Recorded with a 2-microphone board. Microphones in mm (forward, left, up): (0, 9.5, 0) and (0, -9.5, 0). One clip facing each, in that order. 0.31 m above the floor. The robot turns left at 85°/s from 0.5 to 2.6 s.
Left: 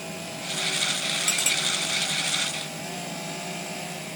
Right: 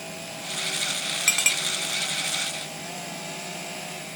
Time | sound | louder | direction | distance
1.3 | a clink | right 4 dB | 55° right (ahead or behind) | 2 m